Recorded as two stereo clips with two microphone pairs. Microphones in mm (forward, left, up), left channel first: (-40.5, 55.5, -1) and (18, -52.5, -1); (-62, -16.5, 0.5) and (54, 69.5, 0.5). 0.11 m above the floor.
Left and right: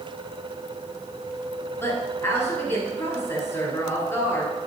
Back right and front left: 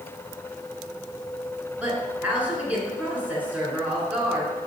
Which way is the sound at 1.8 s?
95° left.